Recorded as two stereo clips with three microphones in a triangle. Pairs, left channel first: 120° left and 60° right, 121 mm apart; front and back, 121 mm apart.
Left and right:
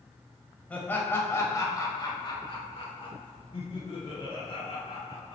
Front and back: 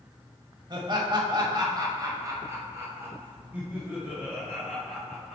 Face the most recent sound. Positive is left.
turn(degrees=95)